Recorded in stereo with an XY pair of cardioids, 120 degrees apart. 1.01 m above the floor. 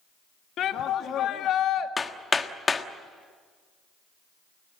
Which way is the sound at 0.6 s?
60° left.